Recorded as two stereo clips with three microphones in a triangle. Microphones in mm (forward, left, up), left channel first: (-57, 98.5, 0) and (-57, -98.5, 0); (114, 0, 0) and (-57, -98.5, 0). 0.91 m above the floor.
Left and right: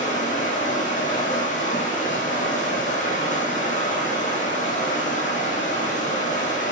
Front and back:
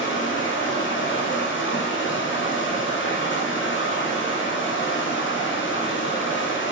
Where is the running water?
40° left, 4 m.